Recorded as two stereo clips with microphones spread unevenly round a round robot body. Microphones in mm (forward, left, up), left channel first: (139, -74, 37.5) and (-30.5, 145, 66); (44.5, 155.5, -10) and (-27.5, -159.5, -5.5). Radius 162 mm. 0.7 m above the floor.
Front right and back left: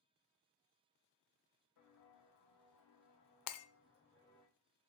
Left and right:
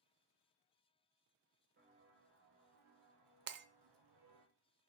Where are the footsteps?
45° right, 2.5 m; by 4.5 s 145° right, 1.4 m.